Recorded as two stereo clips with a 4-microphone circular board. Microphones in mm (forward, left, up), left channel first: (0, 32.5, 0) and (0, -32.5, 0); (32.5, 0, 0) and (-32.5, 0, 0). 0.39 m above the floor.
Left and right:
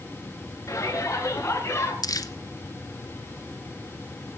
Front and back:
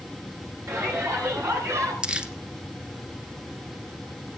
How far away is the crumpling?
About 1.3 m.